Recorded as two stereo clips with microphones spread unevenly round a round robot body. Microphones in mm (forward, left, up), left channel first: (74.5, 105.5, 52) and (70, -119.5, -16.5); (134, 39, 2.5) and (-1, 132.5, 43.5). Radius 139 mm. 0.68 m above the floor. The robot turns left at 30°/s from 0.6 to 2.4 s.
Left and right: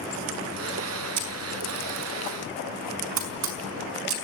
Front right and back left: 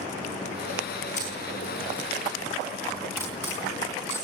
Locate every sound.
1.2 s a camera shutter: 95° right, 4.5 m; by 4.2 s 130° right, 4.5 m